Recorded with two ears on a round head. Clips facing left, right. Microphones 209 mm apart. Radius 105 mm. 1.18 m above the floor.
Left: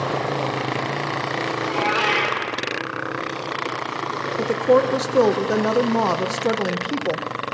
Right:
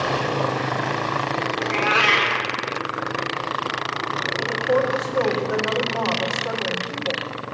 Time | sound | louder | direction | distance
1.6 | a cat meowing | left 1 dB | 40° right (ahead or behind) | 1.6 m
4.4 | a woman speaking | left 5 dB | 60° left (ahead or behind) | 0.6 m